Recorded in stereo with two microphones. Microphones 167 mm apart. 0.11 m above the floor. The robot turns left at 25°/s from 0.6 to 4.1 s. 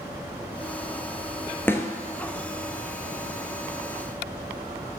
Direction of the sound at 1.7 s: 15° left (ahead or behind).